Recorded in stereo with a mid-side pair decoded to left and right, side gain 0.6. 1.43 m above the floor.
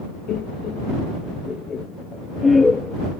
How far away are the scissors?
No scissors in this recording.